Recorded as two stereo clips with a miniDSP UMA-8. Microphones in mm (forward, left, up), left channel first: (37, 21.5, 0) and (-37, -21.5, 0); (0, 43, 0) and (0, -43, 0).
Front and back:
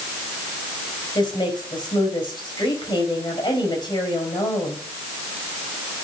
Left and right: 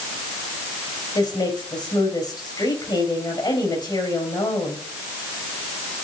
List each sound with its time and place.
1.1 s a woman speaking: 60° left, 4.5 m